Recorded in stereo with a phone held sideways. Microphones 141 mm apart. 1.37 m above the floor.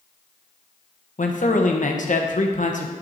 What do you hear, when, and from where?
1.2 s a man speaking: 65° left (ahead or behind), 1.1 m